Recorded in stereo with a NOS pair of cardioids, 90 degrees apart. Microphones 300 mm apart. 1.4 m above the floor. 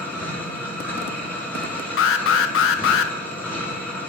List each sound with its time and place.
0.0 s a machine running: 5° left, 1.5 m
2.0 s an alarm: 45° left, 0.5 m